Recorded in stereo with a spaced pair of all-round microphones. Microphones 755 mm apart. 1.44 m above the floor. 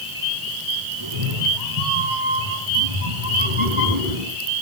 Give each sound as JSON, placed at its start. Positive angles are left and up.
{"t": 1.0, "sound": "a cat meowing", "side_deg": -30, "distance_m": 6.5}